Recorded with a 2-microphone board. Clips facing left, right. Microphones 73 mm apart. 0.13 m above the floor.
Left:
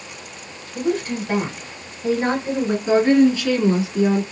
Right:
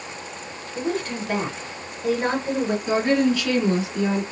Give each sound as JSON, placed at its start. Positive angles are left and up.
{"t": 0.8, "sound": "a woman speaking", "side_deg": 10, "distance_m": 1.8}
{"t": 2.9, "sound": "a woman speaking", "side_deg": 25, "distance_m": 1.3}